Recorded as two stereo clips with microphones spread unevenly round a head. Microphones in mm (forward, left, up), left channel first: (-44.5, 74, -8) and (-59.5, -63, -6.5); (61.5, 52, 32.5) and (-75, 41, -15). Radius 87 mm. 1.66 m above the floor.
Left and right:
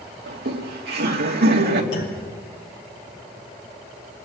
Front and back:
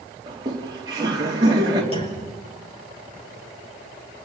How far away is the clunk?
About 5.5 m.